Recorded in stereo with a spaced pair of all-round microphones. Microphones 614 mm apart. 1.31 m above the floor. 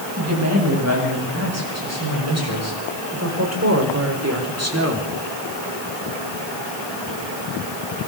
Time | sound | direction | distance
0.2 | a woman speaking | 25° right (ahead or behind) | 9.5 m